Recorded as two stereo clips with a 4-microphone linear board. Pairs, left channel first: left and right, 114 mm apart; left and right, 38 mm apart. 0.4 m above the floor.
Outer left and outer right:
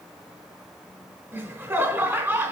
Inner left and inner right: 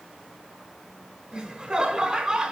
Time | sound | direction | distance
1.3 | laughter | 20° right (ahead or behind) | 1.1 m